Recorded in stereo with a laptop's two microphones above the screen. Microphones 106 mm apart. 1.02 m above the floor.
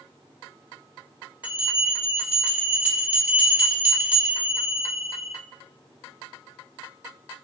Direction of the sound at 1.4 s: 15° right (ahead or behind).